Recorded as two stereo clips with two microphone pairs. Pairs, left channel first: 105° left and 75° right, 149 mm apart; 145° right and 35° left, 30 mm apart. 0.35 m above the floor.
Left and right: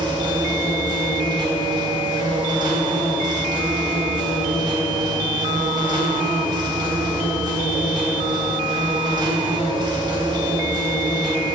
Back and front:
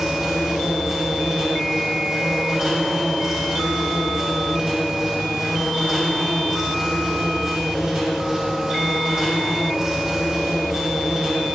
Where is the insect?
30° right, 3 m.